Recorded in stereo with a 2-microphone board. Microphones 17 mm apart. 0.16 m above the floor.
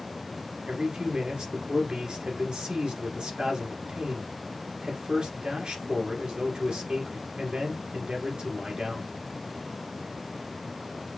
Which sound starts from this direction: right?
A man speaking, at 0.7 s.